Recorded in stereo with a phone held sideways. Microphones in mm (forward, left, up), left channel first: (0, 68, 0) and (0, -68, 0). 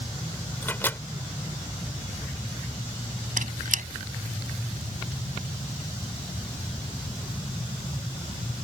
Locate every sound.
0.6 s a microwave: 15° left (ahead or behind)
3.4 s a squeak: 75° right (ahead or behind)